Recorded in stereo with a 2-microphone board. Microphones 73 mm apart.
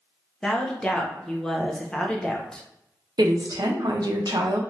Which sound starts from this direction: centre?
A woman speaking, at 0.4 s.